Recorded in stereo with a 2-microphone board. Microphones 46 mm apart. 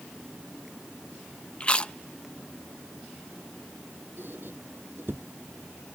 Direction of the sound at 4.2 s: 50° right (ahead or behind).